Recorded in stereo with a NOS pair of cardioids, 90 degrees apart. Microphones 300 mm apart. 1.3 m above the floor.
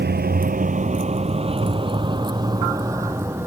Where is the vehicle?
35° right; by 3.5 s 10° right.